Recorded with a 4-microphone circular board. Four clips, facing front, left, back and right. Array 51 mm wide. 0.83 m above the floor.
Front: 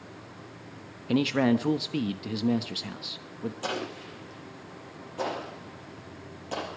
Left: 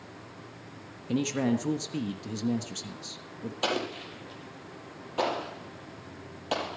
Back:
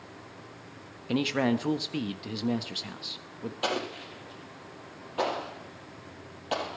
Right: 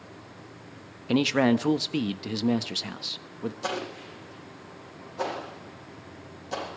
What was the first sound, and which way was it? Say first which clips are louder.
A man speaking: right 6 dB, front 3 dB; 90° right.